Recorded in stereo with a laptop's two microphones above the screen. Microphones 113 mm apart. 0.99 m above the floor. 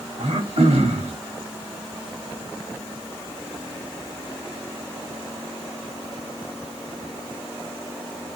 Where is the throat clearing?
80° right, 1.0 m.